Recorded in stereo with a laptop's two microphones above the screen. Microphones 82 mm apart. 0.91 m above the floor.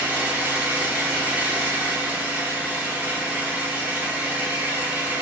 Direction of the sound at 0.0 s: 20° right (ahead or behind).